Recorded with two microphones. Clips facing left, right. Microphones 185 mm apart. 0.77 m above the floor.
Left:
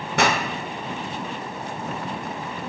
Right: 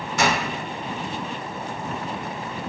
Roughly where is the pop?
Left.